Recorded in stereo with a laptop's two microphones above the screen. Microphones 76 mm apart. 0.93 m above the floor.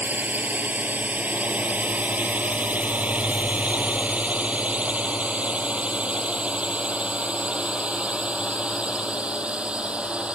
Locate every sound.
0.0 s a drone: 25° right (ahead or behind); by 10.3 s 15° right (ahead or behind)